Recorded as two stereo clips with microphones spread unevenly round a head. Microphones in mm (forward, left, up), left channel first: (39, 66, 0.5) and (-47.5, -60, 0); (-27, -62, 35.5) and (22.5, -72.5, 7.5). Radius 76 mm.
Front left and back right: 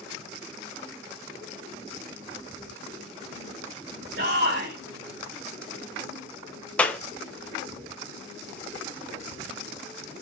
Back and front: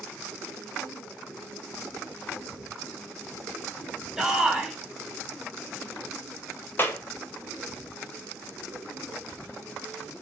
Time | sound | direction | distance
4.2 | a shout | 100° right | 4.5 m
6.8 | a clap | 135° left | 0.9 m